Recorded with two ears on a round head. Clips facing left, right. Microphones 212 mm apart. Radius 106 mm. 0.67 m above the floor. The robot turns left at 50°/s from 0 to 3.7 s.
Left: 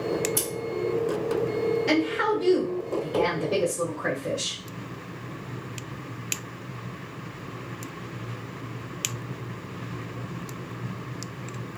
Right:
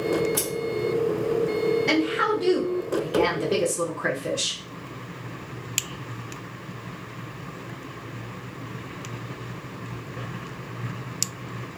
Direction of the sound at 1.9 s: 5° left.